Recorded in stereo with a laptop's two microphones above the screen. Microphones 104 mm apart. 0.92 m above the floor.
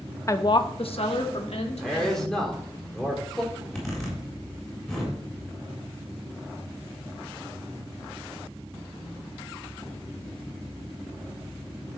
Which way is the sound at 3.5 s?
5° left (ahead or behind).